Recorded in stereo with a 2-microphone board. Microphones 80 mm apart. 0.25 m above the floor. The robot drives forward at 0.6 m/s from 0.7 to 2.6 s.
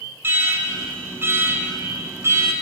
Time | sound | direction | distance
0.2 | an alarm | 30° right (ahead or behind) | 4.5 m